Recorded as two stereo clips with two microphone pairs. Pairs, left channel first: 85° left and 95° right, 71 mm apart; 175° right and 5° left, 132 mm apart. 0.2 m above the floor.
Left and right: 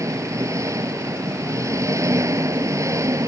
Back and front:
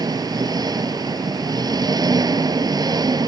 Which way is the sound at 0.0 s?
55° right.